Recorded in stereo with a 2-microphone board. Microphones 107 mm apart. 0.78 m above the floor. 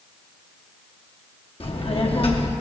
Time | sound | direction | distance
1.6 | a child speaking | 60° left (ahead or behind) | 1.0 m